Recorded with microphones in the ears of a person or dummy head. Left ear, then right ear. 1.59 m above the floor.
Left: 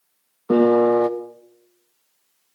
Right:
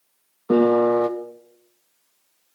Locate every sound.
0.5 s a piano: 5° left (ahead or behind), 0.6 m